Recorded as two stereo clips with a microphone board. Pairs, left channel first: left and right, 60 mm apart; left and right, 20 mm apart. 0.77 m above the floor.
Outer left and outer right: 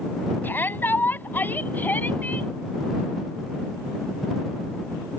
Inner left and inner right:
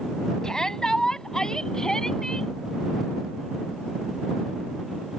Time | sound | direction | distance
0.4 | a shout | 35° left (ahead or behind) | ?